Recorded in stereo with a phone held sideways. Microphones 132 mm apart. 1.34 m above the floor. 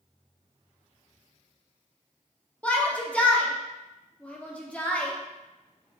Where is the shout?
10° left (ahead or behind), 0.7 m.